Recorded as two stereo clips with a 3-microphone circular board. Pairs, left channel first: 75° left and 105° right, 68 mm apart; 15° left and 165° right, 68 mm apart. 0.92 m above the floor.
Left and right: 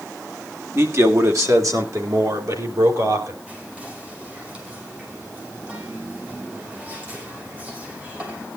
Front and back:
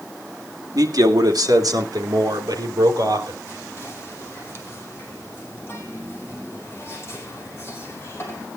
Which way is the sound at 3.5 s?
40° right.